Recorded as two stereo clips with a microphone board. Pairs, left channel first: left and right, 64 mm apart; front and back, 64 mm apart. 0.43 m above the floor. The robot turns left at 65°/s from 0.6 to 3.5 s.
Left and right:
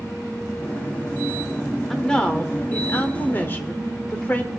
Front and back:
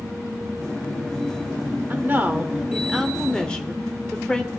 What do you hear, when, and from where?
1.9 s a woman speaking: 170° left, 1.1 m; by 4.5 s 65° left, 1.1 m